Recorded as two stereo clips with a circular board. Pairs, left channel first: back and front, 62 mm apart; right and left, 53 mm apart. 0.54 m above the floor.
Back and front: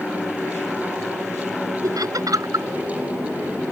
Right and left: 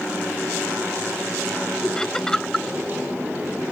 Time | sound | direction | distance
1.8 | laughter | 10° right | ?